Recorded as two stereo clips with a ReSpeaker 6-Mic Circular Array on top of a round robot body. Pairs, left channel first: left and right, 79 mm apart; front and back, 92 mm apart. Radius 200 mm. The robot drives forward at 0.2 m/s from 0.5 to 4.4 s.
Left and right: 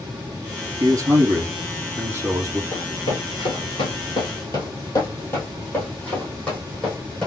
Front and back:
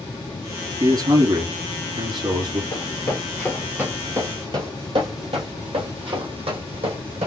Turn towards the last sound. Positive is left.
turn(degrees=170)